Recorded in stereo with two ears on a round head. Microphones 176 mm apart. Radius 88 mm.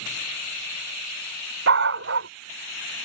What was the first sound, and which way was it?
A dog barking, 65° right (ahead or behind).